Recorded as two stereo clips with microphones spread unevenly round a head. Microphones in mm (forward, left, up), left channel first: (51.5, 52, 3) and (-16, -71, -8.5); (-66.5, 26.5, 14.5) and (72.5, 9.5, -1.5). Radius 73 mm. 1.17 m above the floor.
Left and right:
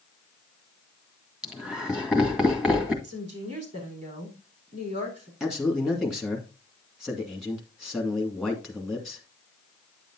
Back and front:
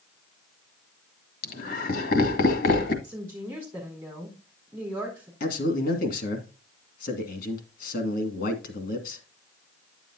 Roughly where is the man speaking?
Behind left.